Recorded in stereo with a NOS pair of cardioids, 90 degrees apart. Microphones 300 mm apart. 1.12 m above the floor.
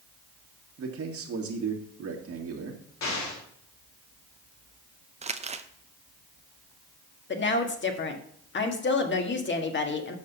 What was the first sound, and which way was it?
A man speaking, 50° right.